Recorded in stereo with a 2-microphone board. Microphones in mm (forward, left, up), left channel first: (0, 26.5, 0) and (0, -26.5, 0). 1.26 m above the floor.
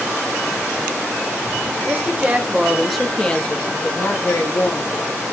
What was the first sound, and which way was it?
A woman speaking, 40° right (ahead or behind).